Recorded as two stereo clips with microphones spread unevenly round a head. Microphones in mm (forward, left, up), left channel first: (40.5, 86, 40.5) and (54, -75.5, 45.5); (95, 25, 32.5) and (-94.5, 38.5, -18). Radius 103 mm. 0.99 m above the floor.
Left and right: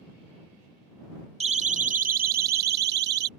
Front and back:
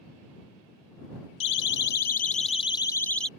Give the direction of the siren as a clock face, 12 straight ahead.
1 o'clock.